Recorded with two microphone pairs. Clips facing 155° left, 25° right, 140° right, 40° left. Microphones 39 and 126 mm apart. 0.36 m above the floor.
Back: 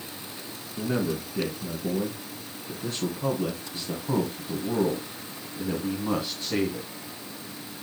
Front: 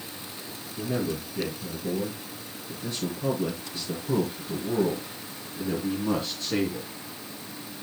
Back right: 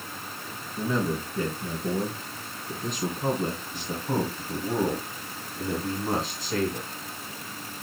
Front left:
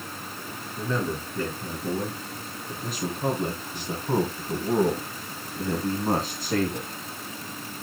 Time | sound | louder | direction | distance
0.8 | a man speaking | back 2 dB, back right 2 dB | 140° left | 4 m